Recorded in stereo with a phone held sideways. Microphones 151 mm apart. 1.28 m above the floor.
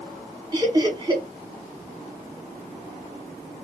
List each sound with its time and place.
0.5 s laughter: 25° right (ahead or behind), 1.5 m